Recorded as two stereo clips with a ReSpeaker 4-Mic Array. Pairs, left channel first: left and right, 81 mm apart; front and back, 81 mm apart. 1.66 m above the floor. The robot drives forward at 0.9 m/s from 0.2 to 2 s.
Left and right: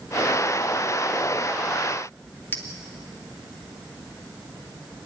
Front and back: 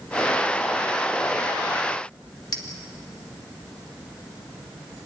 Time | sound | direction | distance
2.5 | a clink | 30° left | 2.5 m